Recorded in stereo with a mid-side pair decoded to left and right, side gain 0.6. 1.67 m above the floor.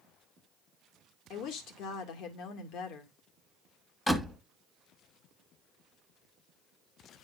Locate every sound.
1.3 s a woman speaking: 65° left, 2 m
4.1 s a door slam: 15° left, 1.7 m